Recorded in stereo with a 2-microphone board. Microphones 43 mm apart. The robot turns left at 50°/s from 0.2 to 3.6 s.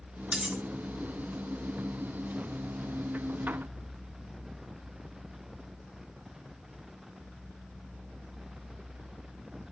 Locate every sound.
0.3 s cutlery clinking: 25° right (ahead or behind), 0.6 m; by 0.6 s 20° right (ahead or behind), 0.6 m